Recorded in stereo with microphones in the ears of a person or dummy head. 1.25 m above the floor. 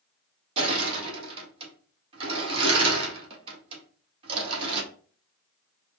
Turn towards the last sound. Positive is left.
turn(degrees=-30)  # may be behind; listen again after turning